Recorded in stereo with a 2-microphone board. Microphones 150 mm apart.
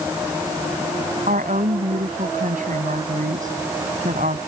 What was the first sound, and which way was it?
A woman speaking, 65° right (ahead or behind).